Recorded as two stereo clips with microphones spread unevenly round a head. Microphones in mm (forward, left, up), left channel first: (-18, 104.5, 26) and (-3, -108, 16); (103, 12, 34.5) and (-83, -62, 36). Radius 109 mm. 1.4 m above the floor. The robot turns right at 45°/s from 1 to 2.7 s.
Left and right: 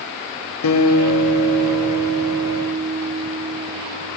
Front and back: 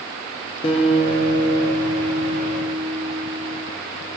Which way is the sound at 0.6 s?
90° left.